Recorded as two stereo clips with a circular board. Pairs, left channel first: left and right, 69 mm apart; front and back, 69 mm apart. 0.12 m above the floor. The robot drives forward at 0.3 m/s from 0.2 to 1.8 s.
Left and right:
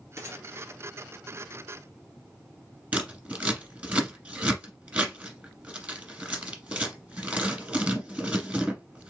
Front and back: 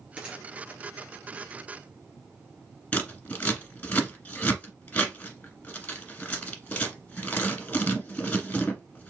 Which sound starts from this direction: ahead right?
Scissors, at 2.9 s.